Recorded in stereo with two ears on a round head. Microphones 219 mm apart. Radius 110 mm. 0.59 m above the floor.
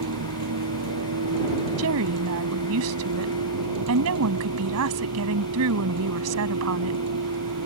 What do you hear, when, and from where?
0.0 s a vehicle: 75° right (ahead or behind)
1.8 s a woman speaking: 65° right (ahead or behind)